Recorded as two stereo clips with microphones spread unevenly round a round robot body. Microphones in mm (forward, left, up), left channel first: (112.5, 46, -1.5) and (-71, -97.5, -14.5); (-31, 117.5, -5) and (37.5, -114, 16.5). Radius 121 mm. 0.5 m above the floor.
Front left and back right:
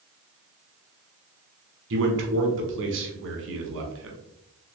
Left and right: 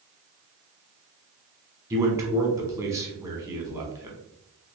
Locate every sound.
1.9 s a man speaking: 155° right, 1.0 m